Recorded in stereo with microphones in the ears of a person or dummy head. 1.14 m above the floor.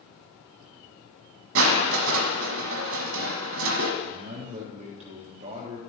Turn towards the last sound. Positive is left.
turn(degrees=-45)  # may be behind; listen again after turning